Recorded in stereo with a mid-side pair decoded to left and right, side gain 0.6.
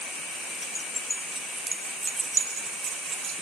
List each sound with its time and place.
0.6 s keys jangling: 25° left, 1.1 m; by 3.4 s 60° right, 1.2 m